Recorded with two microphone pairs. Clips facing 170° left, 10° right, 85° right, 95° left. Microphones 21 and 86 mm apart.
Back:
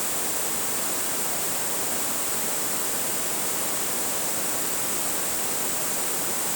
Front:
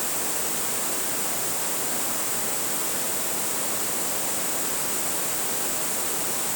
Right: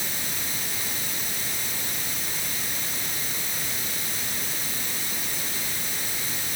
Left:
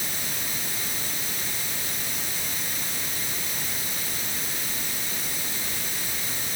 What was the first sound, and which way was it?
Only background noise.